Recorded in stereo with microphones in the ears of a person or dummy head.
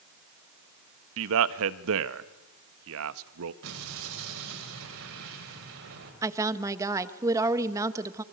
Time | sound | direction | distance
1.2 | a man speaking | 75° right (ahead or behind) | 1.2 m
3.6 | an explosion | 70° right (ahead or behind) | 6 m
6.2 | a woman speaking | 15° right (ahead or behind) | 1.2 m